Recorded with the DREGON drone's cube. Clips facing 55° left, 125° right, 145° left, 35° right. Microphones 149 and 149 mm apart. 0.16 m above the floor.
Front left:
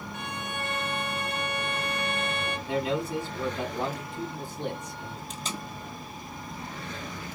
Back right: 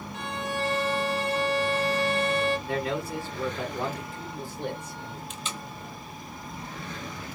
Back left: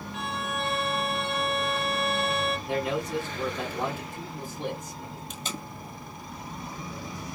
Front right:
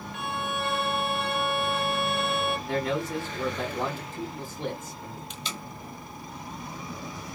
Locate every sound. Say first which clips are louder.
0.1 s a violin: back right 6 dB, front right 1 dB; 120° right, 1.2 m
2.7 s a man speaking: front left 1 dB, even; 95° left, 1.9 m
5.3 s tape being pulled: front left 1 dB, back left 1 dB; 105° left, 0.9 m